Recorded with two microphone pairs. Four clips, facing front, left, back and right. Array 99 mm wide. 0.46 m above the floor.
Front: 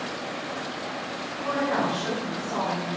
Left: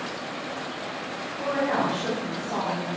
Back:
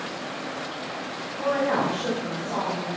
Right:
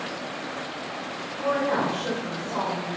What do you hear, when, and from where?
1.4 s a woman speaking: 165° left, 3 m; by 2.9 s 120° left, 3 m